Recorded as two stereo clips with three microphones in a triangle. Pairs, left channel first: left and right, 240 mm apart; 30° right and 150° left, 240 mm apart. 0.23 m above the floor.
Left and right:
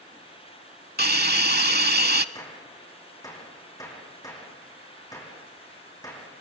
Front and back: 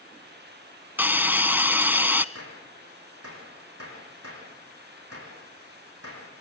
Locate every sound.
1.0 s a hiss: 130° right, 0.6 m
2.4 s a gunshot: 165° left, 6.5 m